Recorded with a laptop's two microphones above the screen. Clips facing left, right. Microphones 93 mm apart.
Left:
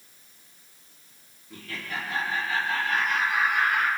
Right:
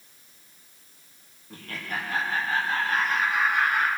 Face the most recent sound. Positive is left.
turn(degrees=-35)  # may be behind; listen again after turning